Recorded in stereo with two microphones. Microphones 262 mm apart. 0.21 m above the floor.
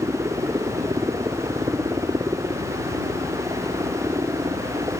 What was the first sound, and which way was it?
A helicopter, 10° right (ahead or behind).